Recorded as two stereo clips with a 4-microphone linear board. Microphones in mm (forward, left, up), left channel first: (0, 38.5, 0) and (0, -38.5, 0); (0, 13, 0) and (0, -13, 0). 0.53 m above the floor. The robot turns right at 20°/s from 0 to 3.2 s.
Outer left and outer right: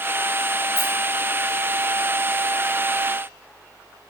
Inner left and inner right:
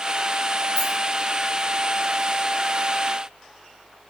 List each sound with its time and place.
0.8 s a rattle: 25° left (ahead or behind), 2.0 m; by 0.9 s 30° left (ahead or behind), 2.0 m